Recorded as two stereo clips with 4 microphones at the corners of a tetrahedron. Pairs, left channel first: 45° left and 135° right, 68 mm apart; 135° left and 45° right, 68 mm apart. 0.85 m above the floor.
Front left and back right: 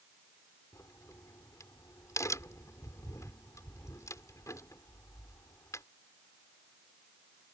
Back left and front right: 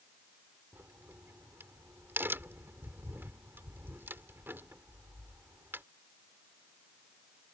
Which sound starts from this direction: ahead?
A crack, at 0.7 s.